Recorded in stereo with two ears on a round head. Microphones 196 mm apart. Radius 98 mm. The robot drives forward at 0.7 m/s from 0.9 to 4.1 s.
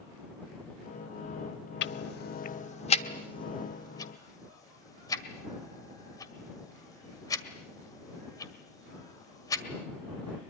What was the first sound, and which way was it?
Ticking, 55° left (ahead or behind).